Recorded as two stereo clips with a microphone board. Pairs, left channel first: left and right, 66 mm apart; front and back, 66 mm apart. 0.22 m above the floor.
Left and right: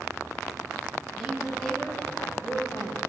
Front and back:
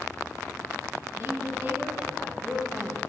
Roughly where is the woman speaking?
Behind.